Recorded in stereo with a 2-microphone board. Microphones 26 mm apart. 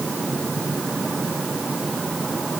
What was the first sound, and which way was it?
Only background noise.